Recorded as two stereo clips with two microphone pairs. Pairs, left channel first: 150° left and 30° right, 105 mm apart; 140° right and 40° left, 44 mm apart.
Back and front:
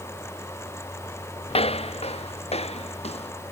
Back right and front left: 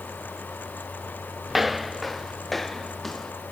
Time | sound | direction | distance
1.5 | footsteps | 125° left | ?